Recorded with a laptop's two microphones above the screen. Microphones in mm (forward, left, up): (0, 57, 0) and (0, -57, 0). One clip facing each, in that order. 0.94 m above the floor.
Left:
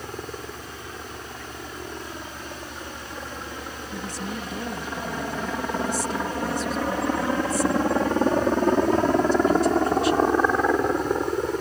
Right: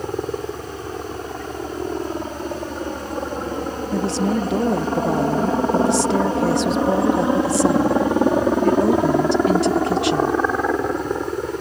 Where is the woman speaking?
80° right.